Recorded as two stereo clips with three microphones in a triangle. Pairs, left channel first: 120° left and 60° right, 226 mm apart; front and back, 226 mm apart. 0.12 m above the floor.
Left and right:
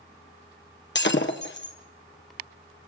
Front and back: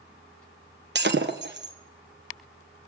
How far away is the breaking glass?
About 2.5 m.